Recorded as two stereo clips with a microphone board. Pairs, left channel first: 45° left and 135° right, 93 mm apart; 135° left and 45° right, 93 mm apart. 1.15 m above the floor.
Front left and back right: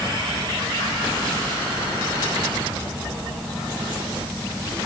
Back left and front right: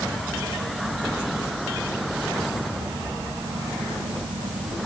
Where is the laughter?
No laughter in this recording.